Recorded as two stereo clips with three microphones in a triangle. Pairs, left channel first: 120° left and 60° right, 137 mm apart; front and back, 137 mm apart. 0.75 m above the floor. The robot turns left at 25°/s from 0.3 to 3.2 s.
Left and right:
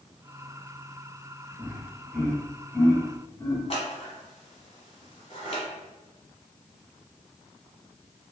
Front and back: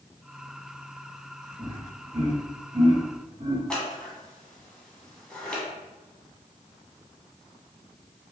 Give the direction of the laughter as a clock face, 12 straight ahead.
5 o'clock.